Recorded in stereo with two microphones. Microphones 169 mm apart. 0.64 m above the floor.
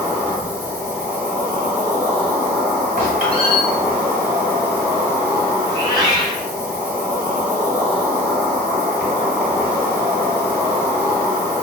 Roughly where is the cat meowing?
Right.